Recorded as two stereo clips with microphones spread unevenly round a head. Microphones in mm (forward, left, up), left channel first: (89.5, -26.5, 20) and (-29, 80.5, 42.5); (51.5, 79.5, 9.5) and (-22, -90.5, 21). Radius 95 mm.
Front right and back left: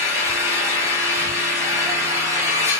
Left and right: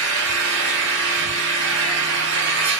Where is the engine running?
145° right, 0.9 m.